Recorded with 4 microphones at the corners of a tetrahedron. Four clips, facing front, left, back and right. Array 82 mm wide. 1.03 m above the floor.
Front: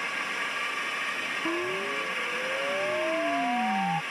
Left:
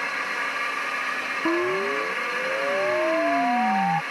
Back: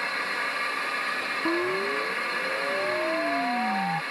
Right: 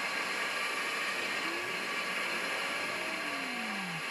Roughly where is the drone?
Behind left.